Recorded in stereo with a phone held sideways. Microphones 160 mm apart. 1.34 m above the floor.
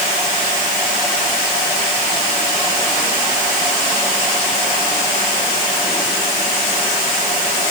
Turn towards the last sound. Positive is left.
No sound to turn to.